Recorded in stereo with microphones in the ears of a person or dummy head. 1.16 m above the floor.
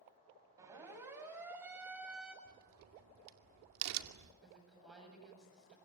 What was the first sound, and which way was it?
A siren, 15° right (ahead or behind).